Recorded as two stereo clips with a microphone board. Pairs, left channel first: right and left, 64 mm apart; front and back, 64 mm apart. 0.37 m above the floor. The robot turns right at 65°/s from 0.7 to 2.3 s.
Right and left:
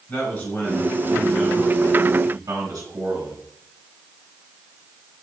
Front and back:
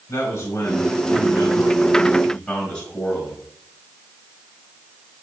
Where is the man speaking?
30° right, 3 m; by 3.5 s 75° left, 3 m.